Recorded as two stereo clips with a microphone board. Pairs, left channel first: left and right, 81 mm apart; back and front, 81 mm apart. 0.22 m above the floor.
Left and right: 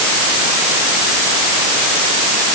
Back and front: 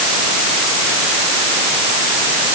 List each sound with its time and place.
Only background noise.